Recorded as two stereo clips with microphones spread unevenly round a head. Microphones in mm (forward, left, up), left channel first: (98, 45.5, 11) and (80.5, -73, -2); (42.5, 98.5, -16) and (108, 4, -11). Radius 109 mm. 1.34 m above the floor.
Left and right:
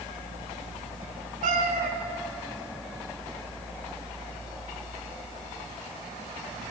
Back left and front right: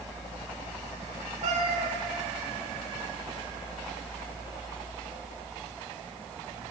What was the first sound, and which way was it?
A cat meowing, 90° right.